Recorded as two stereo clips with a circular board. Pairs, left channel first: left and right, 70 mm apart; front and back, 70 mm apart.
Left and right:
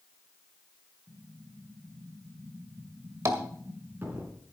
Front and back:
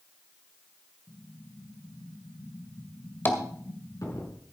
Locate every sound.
1.1 s an explosion: 30° right, 4.5 m
3.2 s tapping: 55° right, 1.8 m